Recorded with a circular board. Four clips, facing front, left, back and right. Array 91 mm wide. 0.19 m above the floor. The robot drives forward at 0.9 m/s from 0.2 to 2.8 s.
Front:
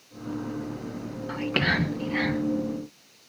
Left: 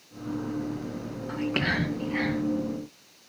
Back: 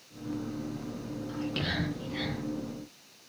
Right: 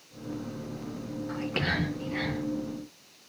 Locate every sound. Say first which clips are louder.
1.3 s whispering: left 4 dB, front 8 dB; 15° left, 2.5 m; by 2.4 s 25° left, 1.9 m